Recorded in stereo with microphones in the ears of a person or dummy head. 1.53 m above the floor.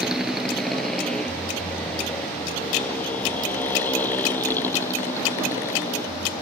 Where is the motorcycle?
Centre (ahead or behind); by 6.4 s 15° left (ahead or behind).